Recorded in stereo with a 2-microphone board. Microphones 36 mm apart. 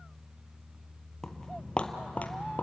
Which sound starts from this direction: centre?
Footsteps, at 1.2 s.